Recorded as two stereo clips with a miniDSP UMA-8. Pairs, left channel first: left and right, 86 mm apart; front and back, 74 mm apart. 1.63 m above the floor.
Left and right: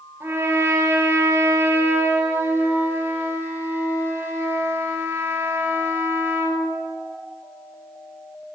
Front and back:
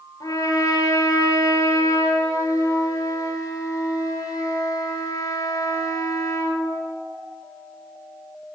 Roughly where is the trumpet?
Ahead right.